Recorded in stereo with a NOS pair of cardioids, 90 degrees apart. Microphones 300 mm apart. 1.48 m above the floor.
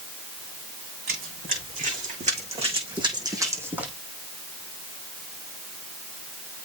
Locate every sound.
1.1 s running footsteps: 30° right, 6.5 m; by 3.9 s 5° right, 4 m